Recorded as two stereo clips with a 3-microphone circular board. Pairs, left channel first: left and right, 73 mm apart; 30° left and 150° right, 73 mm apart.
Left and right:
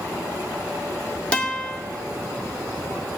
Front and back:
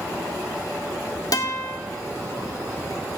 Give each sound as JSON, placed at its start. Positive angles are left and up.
{"t": 1.3, "sound": "a guitar", "azimuth_deg": 20, "distance_m": 1.8}